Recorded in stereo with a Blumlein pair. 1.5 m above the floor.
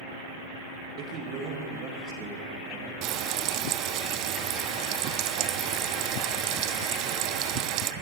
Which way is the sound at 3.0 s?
40° right.